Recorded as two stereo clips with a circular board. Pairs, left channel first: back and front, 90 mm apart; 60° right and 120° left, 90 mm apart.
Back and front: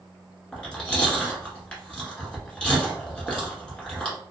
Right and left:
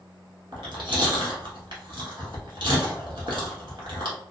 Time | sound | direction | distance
0.5 | chewing | 100° left | 1.1 m